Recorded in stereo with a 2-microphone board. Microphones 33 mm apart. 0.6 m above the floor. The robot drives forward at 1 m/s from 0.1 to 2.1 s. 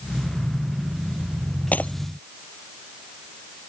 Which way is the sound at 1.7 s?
55° left (ahead or behind).